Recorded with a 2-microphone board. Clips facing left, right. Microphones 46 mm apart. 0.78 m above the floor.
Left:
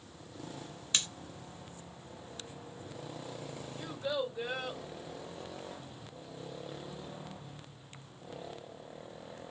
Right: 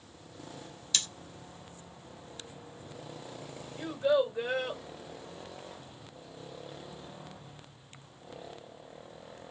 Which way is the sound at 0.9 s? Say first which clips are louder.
Even; 25° left (ahead or behind).